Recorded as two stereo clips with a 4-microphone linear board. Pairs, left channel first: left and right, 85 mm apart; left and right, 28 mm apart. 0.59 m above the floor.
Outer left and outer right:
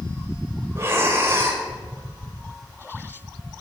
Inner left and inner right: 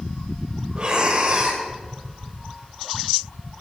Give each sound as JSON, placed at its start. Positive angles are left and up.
{"t": 0.8, "sound": "breathing", "side_deg": -30, "distance_m": 1.8}